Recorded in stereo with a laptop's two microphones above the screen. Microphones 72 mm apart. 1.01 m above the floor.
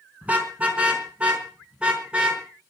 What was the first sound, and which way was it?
A car horn, 20° right (ahead or behind).